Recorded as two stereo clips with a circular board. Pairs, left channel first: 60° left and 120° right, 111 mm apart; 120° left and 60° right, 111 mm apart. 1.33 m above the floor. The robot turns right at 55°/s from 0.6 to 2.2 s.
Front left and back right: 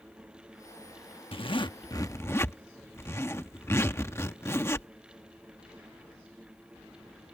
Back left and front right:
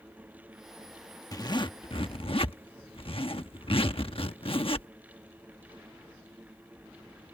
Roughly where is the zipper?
Left.